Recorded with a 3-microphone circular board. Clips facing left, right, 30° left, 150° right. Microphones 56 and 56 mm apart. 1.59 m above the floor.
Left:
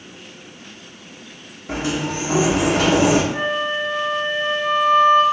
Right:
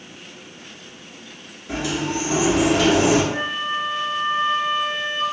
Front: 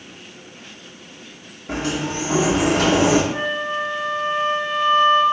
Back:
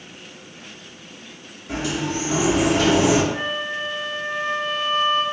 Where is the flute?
20° right, 0.7 m.